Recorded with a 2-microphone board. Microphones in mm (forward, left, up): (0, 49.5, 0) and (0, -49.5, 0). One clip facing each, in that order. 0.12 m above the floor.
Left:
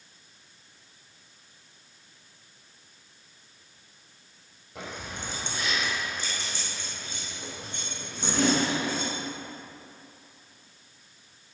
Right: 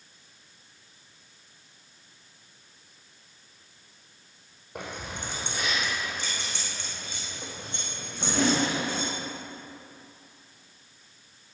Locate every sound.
4.8 s keys jangling: 55° right (ahead or behind), 3.5 m; by 9.1 s 60° right (ahead or behind), 6 m